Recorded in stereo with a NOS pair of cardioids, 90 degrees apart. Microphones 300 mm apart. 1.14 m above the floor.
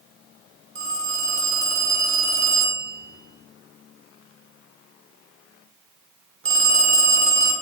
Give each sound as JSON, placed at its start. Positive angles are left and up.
{"t": 0.8, "sound": "a phone ringing", "azimuth_deg": -45, "distance_m": 2.0}